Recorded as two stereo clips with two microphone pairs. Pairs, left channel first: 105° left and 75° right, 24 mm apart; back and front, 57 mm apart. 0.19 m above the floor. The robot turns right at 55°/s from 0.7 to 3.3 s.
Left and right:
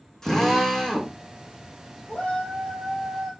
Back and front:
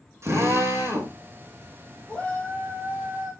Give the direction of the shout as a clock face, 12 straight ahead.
8 o'clock.